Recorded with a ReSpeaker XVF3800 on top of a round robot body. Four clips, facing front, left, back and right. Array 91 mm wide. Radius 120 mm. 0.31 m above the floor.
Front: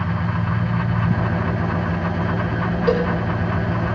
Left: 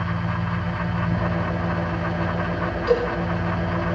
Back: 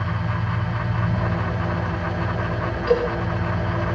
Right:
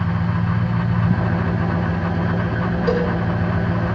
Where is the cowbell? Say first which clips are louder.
Even, even; 20° right, 8.5 m.